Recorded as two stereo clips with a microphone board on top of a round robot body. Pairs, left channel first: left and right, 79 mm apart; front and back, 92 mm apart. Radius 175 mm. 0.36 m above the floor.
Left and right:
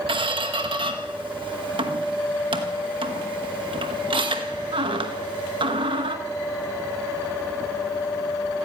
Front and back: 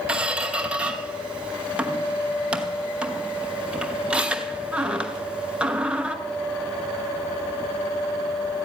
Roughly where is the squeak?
Right.